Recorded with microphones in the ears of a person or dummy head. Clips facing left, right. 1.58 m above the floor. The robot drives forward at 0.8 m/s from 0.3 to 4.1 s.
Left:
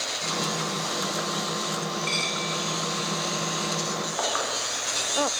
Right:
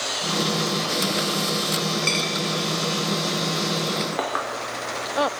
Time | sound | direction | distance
2.0 | a dropped coin | 60° right (ahead or behind) | 3 m
4.1 | a clink | 55° right (ahead or behind) | 3.5 m